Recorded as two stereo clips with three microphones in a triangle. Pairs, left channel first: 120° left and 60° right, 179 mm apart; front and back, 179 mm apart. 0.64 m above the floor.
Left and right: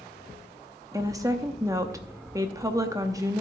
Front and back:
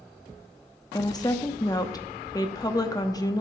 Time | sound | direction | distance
0.9 | a woman speaking | 25° right | 0.7 m